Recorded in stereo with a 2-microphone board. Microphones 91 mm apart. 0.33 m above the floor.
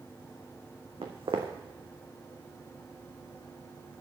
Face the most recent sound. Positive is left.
turn(degrees=-80)